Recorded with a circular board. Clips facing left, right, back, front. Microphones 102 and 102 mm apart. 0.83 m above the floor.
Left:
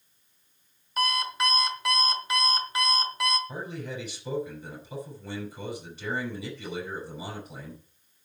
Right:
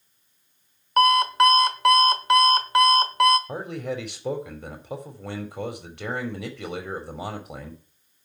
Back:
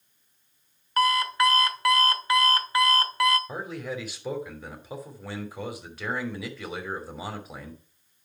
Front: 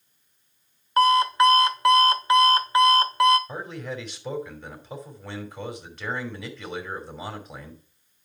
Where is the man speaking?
95° right, 3 m.